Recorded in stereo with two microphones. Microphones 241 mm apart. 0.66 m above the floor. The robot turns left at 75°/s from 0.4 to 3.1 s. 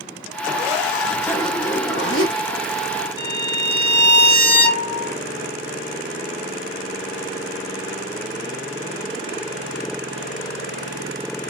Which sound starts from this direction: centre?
A violin, at 3.2 s.